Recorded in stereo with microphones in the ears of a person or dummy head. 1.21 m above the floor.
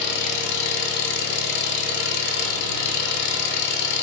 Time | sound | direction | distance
0.0 | an engine running | 65° left (ahead or behind) | 1.0 m